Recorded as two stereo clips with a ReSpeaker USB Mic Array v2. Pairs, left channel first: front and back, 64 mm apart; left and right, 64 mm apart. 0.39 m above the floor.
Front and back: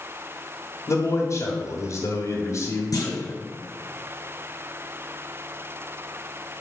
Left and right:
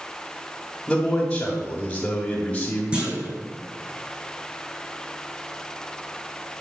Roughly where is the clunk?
Ahead.